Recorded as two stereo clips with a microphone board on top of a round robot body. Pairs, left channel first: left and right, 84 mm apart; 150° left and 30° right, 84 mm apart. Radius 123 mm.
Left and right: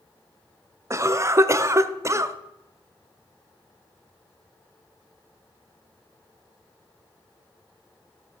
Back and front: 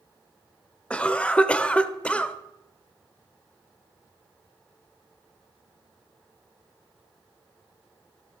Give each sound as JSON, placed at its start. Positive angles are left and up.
{"t": 0.9, "sound": "a cough", "azimuth_deg": -135, "distance_m": 1.0}